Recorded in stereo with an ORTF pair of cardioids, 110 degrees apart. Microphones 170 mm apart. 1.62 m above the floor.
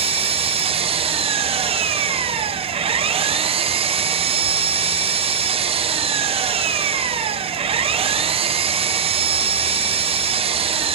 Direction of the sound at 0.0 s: 35° right.